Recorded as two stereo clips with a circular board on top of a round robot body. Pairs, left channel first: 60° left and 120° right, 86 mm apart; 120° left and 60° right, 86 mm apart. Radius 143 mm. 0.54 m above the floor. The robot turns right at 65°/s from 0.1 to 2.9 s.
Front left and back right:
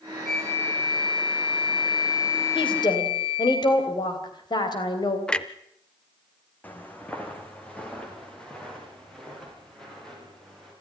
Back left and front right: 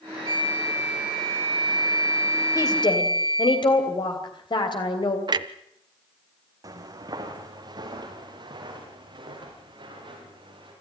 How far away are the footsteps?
About 2.5 m.